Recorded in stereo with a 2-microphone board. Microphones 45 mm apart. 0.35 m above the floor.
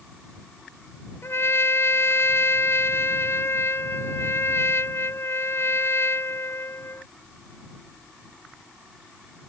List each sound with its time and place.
1.2 s a trumpet: 65° left (ahead or behind)